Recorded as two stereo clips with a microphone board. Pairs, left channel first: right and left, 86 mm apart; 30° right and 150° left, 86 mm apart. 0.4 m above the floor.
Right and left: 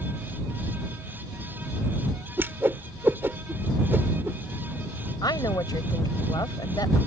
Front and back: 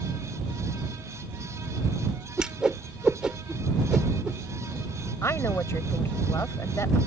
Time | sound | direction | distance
2.4 | a whoosh | 80° left | ?
5.2 | a woman speaking | 80° right | ?